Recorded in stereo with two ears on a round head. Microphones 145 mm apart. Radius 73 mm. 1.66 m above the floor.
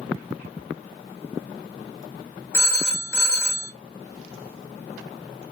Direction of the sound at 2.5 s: 15° left (ahead or behind).